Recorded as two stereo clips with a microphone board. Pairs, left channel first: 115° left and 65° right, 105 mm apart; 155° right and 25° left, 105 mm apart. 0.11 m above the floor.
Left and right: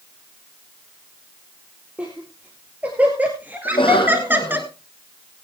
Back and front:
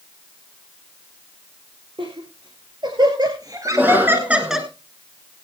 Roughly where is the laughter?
Ahead.